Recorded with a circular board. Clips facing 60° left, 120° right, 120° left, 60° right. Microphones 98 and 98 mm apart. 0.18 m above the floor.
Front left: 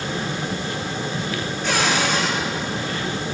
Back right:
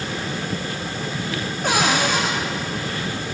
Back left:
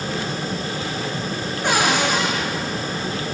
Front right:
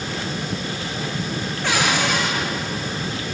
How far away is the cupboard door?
About 7.5 m.